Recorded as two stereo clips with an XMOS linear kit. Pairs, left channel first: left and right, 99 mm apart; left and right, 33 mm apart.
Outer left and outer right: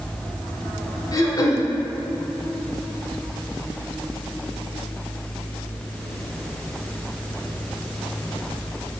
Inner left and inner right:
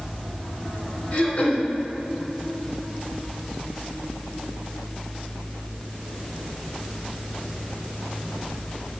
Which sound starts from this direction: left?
Throat clearing, at 1.1 s.